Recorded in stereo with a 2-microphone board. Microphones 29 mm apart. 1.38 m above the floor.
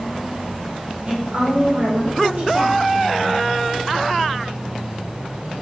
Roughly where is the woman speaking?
Right.